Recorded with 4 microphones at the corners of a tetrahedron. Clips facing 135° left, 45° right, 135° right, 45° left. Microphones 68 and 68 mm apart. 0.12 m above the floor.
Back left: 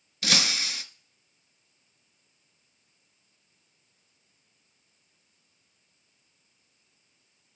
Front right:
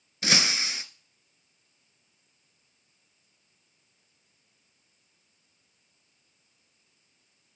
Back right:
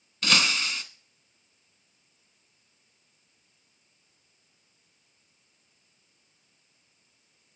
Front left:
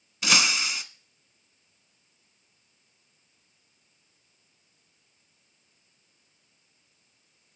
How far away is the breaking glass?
About 0.7 m.